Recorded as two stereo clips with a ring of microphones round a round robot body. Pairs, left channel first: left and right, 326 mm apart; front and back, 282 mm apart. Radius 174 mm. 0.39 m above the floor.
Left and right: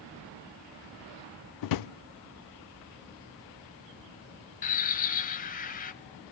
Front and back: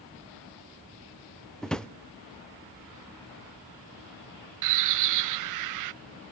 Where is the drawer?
90° left, 0.5 m.